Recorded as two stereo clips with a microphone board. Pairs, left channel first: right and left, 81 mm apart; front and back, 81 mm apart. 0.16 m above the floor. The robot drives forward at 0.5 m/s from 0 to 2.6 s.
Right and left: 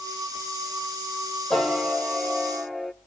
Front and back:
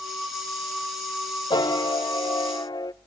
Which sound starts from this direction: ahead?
A piano, at 1.5 s.